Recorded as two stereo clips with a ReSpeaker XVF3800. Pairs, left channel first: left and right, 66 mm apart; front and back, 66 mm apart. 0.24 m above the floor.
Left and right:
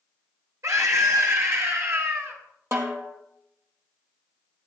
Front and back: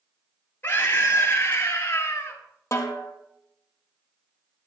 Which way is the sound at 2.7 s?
45° right.